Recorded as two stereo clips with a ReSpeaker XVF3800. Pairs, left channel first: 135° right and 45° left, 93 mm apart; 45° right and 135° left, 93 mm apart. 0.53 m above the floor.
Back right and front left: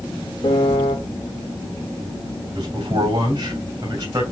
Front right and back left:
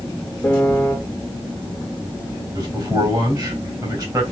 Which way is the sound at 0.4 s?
115° right.